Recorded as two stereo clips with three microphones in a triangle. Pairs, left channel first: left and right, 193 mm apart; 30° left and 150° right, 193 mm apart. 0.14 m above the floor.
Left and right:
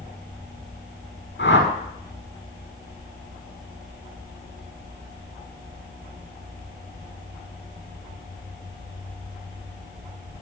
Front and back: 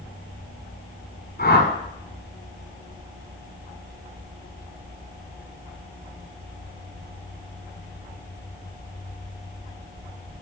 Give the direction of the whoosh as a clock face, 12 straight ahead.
10 o'clock.